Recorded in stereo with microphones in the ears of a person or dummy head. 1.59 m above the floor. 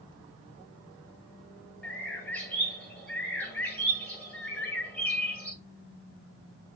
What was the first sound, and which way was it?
A bird, 10° left (ahead or behind).